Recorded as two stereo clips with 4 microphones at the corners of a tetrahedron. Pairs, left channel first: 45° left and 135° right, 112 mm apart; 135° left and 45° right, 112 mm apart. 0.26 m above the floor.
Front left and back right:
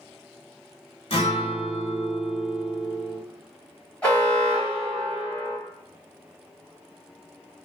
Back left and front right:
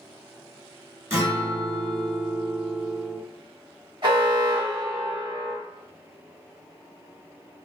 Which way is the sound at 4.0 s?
30° right.